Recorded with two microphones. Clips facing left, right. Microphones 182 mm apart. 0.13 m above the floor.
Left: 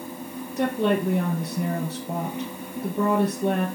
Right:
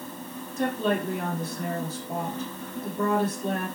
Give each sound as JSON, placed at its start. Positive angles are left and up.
{"t": 0.6, "sound": "a woman speaking", "side_deg": 70, "distance_m": 3.0}